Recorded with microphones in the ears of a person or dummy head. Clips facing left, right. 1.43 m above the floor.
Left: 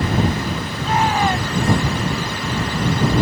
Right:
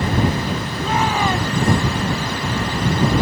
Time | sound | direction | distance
0.8 | a shout | 85° right | ?